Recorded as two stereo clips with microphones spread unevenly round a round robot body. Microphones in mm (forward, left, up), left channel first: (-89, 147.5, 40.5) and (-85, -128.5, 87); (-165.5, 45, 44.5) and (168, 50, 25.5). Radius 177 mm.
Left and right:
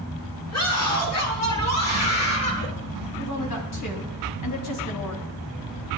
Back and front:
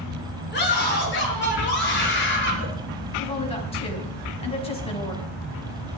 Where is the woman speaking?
105° left, 5.5 m.